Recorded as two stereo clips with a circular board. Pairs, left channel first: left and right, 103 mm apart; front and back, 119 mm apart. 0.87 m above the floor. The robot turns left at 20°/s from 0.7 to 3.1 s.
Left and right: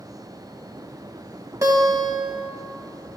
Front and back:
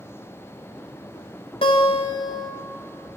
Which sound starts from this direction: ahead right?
A guitar, at 1.6 s.